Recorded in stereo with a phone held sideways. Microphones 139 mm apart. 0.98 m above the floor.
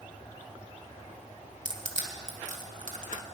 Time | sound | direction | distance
1.6 | crushing | 70° right (ahead or behind) | 2 m